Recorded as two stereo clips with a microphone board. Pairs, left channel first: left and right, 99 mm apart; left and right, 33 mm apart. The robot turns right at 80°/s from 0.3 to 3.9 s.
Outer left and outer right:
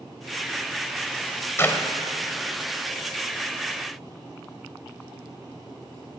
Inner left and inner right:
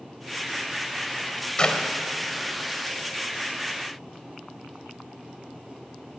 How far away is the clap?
About 1.2 m.